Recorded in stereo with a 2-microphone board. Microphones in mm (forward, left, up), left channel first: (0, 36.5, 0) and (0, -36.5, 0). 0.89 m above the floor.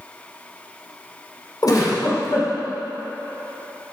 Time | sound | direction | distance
1.6 | a giggle | 60° left (ahead or behind) | 2 m